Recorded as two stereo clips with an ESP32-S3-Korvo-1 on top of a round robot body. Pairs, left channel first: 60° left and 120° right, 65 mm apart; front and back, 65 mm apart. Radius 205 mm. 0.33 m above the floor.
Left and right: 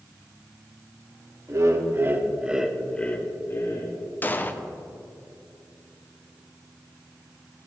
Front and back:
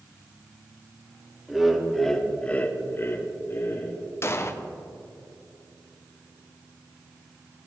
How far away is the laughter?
About 1.9 m.